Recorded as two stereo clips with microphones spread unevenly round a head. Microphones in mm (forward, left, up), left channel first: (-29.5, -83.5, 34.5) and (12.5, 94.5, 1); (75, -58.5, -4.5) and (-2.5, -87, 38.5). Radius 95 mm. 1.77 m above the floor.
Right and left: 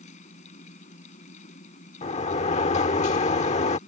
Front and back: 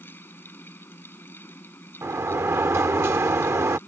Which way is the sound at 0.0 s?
50° right.